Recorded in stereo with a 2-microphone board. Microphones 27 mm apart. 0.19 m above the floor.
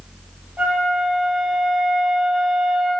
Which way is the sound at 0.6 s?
75° right (ahead or behind).